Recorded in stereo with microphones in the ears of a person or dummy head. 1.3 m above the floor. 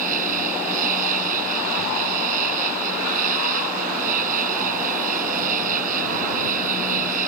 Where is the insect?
35° right (ahead or behind).